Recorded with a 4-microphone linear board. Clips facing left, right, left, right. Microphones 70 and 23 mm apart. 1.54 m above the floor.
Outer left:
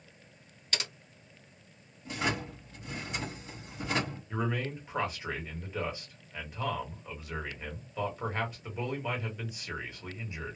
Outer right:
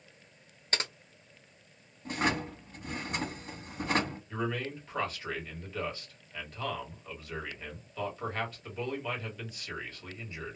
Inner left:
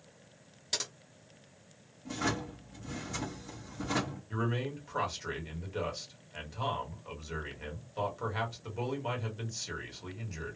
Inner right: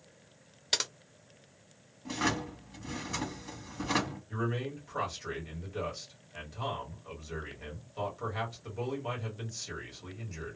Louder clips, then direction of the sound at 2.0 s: Outer right 2 dB, inner right 2 dB; 50° right (ahead or behind).